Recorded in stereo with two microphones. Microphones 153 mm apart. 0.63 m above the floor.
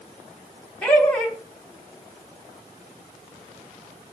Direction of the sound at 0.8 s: 10° left (ahead or behind).